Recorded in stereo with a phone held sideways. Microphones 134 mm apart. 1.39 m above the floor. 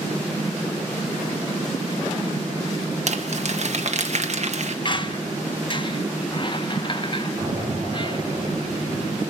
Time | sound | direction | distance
3.1 | crumpling | 55° right (ahead or behind) | 1.5 m
4.8 | a squeak | 35° left (ahead or behind) | 0.9 m
7.4 | an explosion | 45° right (ahead or behind) | 8.5 m